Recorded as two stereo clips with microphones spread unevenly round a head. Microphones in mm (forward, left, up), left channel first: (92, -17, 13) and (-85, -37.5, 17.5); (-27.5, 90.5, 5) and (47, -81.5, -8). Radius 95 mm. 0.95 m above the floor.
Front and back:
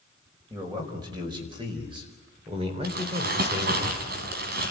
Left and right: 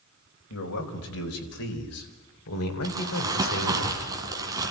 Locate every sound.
0.5 s a man speaking: 115° left, 5 m; by 3.8 s 130° left, 3.5 m
2.8 s crumpling: 140° right, 3.5 m